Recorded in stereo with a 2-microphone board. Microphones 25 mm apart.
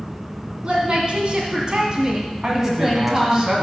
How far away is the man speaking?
About 1.7 m.